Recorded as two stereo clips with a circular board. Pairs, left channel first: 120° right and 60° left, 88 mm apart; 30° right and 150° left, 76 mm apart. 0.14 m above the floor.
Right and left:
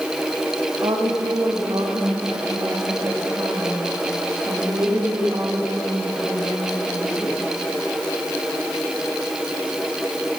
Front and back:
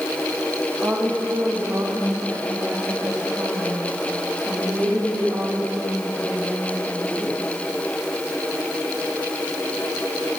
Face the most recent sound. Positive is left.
turn(degrees=105)